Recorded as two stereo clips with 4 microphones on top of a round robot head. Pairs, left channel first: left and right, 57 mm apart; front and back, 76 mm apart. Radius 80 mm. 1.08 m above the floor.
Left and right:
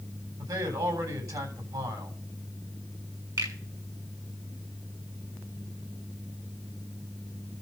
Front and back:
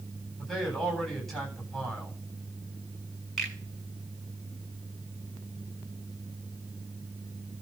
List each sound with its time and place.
0.4 s a man speaking: 90° right, 9.5 m
3.4 s a finger snap: 90° right, 7.5 m